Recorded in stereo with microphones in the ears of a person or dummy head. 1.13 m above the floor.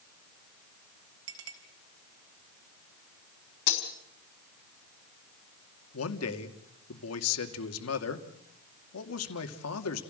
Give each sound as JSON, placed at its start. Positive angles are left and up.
{"t": 1.3, "sound": "a clink", "side_deg": -85, "distance_m": 4.0}
{"t": 3.7, "sound": "breaking glass", "side_deg": 60, "distance_m": 4.5}
{"t": 5.9, "sound": "a man speaking", "side_deg": 80, "distance_m": 2.5}